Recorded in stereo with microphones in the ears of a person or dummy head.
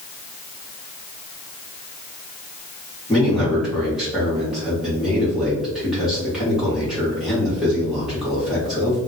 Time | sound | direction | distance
3.1 | a man speaking | centre (ahead or behind) | 1.0 m